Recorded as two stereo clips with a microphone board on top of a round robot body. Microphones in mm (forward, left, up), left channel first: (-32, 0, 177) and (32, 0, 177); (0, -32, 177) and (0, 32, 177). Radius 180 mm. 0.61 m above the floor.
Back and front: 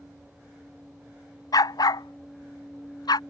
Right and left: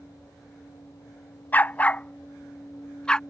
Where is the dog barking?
155° right; by 3.2 s 165° right.